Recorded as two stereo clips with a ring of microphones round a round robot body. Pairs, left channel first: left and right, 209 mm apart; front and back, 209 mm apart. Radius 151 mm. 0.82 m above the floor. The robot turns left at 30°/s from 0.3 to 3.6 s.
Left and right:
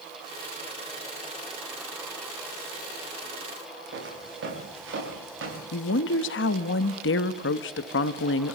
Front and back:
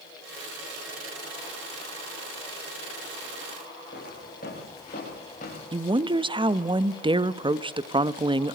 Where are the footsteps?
65° right, 9.5 m; by 5.6 s 70° right, 8.5 m.